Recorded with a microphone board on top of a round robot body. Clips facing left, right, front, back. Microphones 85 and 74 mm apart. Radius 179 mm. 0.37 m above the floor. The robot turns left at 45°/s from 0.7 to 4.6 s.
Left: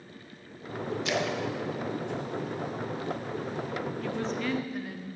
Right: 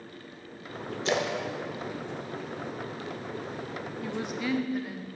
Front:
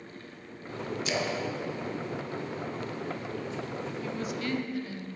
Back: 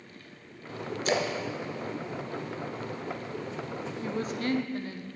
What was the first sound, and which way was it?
A splash, 140° right.